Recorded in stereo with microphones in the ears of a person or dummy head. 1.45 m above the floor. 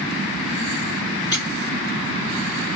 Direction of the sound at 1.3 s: 25° left (ahead or behind).